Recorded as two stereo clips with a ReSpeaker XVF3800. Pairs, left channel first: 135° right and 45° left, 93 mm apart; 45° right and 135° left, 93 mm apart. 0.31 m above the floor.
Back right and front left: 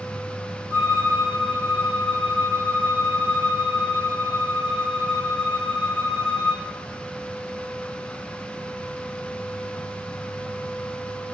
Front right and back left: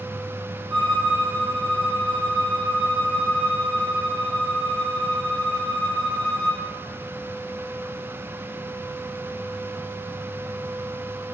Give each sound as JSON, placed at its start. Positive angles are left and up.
{"t": 0.7, "sound": "a violin", "azimuth_deg": 160, "distance_m": 1.5}